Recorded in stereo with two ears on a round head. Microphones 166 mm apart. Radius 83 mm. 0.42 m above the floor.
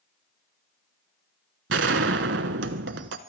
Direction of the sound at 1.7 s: 65° right (ahead or behind).